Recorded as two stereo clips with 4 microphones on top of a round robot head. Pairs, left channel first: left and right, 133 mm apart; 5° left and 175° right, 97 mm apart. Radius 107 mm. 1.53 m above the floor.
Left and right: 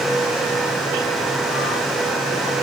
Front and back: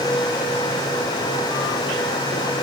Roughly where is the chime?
I don't hear a chime.